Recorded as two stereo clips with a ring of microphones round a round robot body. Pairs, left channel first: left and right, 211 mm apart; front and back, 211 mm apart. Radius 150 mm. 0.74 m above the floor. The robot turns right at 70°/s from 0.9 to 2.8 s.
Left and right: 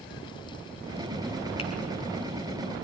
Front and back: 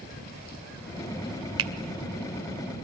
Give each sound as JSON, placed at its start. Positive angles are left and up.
{"t": 1.6, "sound": "a finger snap", "azimuth_deg": 160, "distance_m": 1.9}